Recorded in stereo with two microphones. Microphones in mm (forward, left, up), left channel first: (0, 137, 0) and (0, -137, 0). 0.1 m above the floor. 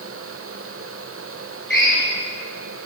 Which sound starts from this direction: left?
A drill, at 1.7 s.